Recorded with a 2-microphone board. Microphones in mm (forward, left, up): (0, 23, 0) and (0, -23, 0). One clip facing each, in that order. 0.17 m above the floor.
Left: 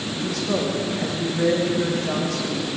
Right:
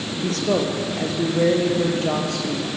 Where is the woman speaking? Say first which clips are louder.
Right 3 dB; 70° right (ahead or behind), 4.5 m; by 2.7 s 75° right (ahead or behind), 5.5 m.